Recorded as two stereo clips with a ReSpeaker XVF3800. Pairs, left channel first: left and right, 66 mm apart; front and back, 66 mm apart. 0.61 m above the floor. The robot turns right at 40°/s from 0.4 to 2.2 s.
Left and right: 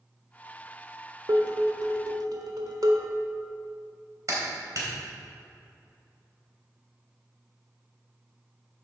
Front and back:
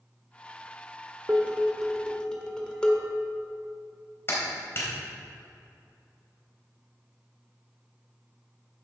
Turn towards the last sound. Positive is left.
turn(degrees=-55)